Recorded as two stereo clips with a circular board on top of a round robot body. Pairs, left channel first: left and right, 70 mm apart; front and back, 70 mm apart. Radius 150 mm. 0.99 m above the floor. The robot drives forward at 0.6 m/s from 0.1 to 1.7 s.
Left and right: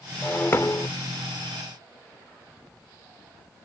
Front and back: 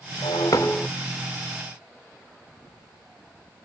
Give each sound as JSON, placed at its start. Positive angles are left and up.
{"t": 0.2, "sound": "breaking glass", "azimuth_deg": 20}